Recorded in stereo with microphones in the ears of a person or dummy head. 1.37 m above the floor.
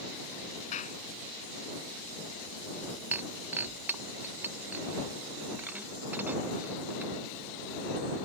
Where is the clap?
40° left (ahead or behind).